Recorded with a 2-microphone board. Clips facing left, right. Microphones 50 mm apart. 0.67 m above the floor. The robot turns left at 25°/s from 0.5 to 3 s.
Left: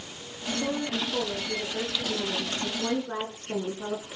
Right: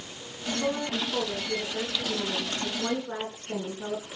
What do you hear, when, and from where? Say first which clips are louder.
0.6 s a woman speaking: right 1 dB; 125° right, 8.5 m; by 4.1 s 175° left, 8.5 m